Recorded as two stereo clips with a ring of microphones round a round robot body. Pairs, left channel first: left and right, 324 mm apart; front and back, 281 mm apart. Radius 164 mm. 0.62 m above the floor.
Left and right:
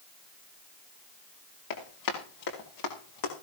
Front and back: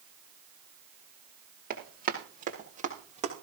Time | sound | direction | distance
1.7 | running footsteps | 120° left | 7.5 m